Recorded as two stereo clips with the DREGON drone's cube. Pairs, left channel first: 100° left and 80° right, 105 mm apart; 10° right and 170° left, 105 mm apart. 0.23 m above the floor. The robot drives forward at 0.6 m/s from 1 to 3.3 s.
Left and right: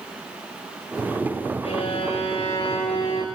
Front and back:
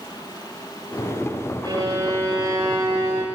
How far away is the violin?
About 9 m.